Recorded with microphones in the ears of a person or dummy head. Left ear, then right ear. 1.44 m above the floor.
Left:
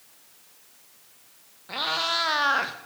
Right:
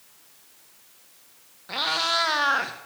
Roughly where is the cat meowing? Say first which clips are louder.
Right 2 dB; centre.